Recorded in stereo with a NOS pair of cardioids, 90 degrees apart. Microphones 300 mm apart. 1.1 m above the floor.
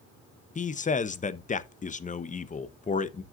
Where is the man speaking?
25° left, 0.9 m.